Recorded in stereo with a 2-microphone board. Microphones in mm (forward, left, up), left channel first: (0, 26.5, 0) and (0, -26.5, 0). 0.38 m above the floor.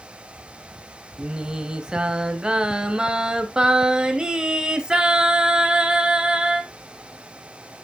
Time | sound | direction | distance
1.2 | singing | 15° right (ahead or behind) | 1.0 m